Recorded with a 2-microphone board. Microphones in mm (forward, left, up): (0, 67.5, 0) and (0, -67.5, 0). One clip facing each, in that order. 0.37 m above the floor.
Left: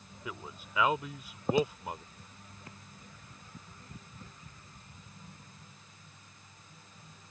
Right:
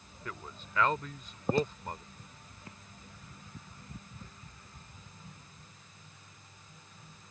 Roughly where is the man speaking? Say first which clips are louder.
Left 1 dB; centre.